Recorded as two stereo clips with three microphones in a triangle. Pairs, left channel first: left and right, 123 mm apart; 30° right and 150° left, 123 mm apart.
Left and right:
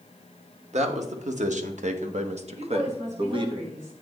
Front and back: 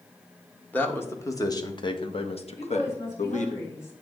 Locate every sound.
0.7 s a man speaking: 105° right, 1.4 m; by 3.5 s 40° right, 1.4 m
2.5 s a woman speaking: 95° right, 5.5 m